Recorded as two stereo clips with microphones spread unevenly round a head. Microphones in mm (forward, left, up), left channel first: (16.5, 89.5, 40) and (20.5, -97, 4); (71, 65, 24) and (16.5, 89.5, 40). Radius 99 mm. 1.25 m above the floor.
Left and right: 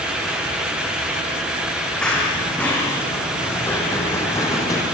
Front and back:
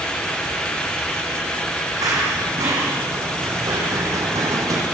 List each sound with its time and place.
2.0 s running footsteps: 175° left, 4.5 m; by 4.8 s 160° left, 3 m